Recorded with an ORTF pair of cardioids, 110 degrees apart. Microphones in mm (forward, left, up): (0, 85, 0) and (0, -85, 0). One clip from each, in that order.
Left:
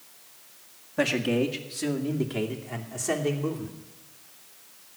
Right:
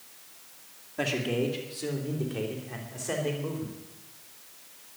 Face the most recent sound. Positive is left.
turn(degrees=60)